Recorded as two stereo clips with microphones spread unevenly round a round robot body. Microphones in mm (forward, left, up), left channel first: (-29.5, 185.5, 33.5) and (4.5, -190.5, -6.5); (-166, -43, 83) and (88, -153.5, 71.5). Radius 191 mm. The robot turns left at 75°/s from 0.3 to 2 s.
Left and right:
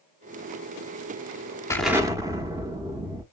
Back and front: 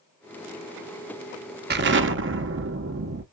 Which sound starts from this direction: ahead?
An explosion, at 1.7 s.